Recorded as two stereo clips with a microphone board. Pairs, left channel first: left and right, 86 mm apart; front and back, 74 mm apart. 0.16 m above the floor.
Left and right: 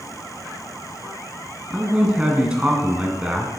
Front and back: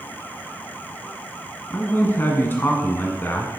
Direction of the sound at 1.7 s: 25° right.